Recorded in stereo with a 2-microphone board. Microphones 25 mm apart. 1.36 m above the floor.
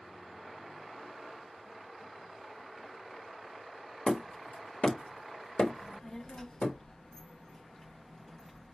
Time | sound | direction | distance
4.1 | hammering | 50° left (ahead or behind) | 1.0 m
5.8 | a child speaking | 20° left (ahead or behind) | 0.8 m